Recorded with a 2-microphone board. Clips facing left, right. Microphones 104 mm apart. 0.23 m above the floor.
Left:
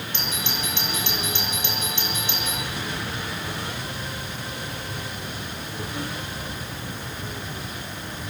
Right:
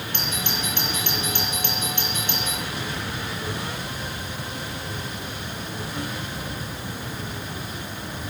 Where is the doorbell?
50° right (ahead or behind), 7.5 m.